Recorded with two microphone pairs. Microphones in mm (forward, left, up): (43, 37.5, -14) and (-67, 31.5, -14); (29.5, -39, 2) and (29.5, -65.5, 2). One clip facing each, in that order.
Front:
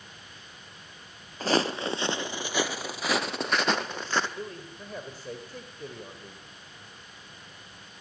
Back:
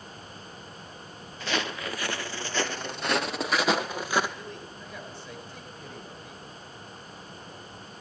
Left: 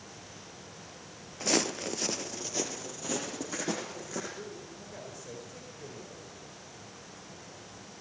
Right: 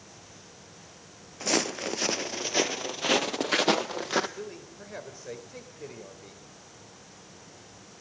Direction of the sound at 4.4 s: 45° right.